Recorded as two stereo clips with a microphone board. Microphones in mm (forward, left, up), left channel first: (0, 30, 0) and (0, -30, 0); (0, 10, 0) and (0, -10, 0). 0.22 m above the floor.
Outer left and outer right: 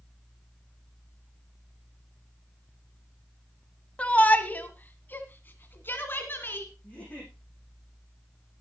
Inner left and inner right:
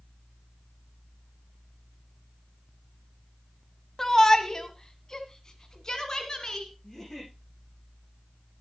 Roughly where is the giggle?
Left.